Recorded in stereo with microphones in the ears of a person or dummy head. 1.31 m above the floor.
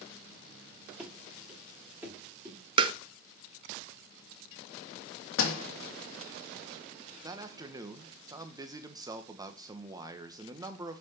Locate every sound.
1.0 s running footsteps: centre (ahead or behind), 5.5 m; by 2.6 s 10° right (ahead or behind), 4.5 m
2.8 s tapping: 30° right (ahead or behind), 0.9 m
5.4 s a door slam: 80° left, 2 m
7.2 s a man speaking: 20° right (ahead or behind), 1.4 m